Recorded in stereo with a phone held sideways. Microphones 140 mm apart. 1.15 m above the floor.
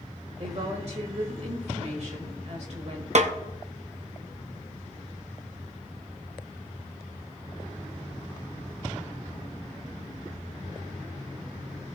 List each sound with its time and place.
0.4 s a woman speaking: 55° right (ahead or behind), 1.8 m
3.1 s a snare drum: 55° right (ahead or behind), 0.8 m